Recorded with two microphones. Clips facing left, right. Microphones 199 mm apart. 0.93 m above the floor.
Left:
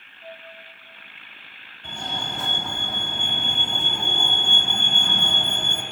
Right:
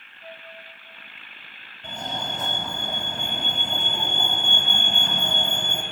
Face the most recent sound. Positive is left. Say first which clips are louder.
# right 1 dB
turn(degrees=-35)  # may be behind; listen again after turning